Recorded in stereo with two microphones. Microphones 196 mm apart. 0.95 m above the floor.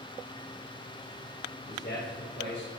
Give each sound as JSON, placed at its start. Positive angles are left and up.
{"t": 1.7, "sound": "a man speaking", "side_deg": 60, "distance_m": 4.0}